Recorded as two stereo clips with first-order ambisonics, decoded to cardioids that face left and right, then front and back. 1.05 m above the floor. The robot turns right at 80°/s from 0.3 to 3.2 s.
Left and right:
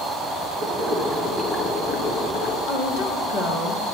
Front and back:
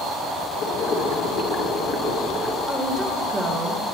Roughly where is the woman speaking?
Left.